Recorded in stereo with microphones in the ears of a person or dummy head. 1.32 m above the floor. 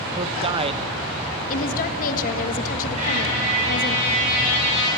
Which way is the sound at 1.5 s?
50° left (ahead or behind).